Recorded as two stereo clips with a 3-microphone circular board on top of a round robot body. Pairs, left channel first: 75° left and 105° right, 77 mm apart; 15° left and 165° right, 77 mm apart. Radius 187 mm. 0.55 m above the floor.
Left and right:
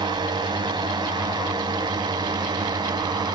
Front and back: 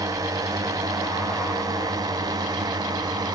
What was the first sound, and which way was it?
A drone, 125° right.